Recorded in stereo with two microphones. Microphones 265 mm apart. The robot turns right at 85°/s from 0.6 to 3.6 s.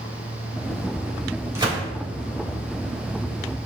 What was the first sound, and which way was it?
A gunshot, 10° right (ahead or behind).